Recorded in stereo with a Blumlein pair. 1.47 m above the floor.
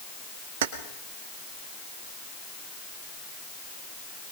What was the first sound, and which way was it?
Keys jangling, 55° right.